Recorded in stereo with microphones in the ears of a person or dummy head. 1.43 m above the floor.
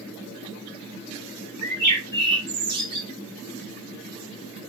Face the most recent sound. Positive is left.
turn(degrees=-55)  # may be behind; listen again after turning